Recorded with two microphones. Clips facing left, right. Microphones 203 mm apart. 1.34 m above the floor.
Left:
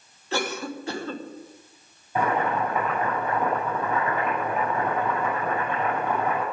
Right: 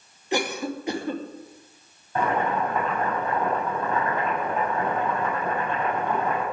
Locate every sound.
0.3 s a cough: 15° right (ahead or behind), 2.5 m
2.1 s boiling: 10° left (ahead or behind), 9 m